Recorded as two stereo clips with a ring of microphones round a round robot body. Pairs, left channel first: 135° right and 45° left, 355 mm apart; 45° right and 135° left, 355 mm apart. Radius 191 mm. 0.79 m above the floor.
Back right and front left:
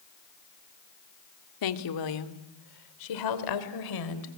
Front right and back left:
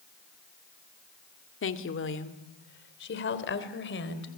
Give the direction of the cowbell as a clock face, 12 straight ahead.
No cowbell in this recording.